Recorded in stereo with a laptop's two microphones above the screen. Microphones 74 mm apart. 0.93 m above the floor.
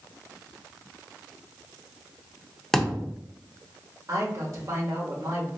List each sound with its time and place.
2.7 s a thud: 5° left (ahead or behind), 0.5 m
4.1 s a man speaking: 40° right (ahead or behind), 1.5 m